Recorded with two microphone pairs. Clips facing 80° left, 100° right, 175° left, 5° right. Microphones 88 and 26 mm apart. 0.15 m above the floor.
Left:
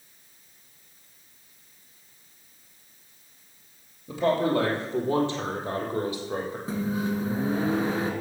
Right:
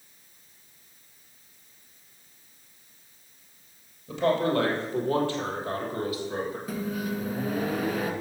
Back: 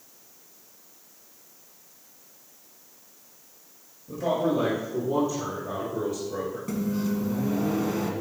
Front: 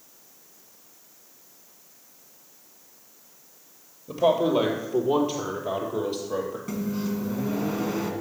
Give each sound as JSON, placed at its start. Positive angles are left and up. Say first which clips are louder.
{"t": 4.1, "sound": "a man speaking", "louder": "left 1 dB, front 4 dB", "azimuth_deg": 0, "distance_m": 4.0}
{"t": 6.7, "sound": "a microwave", "louder": "left 3 dB, back 4 dB", "azimuth_deg": 70, "distance_m": 1.4}